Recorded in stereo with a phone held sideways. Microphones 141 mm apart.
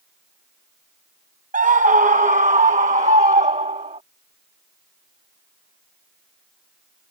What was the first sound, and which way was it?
A scream, 70° right (ahead or behind).